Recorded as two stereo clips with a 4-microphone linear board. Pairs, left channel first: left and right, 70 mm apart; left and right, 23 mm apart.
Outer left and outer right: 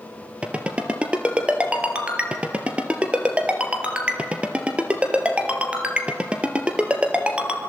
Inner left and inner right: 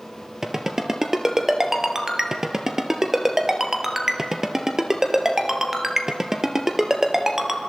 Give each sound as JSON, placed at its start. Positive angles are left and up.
{"t": 0.4, "sound": "a ringtone", "side_deg": -15, "distance_m": 2.0}